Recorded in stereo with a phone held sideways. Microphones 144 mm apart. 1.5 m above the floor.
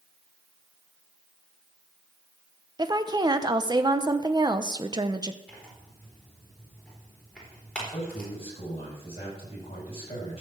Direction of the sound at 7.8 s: 45° left (ahead or behind).